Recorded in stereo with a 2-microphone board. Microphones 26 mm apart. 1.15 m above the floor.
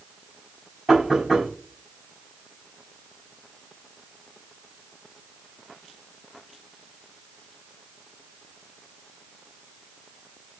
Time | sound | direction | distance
0.9 | knocking | 10° right (ahead or behind) | 5 m